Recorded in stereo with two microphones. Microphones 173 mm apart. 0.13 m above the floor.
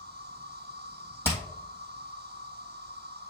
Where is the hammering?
15° right (ahead or behind), 2.5 m.